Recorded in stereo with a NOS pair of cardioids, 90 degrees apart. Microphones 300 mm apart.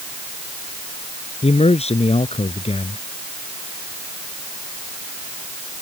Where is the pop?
I don't hear a pop.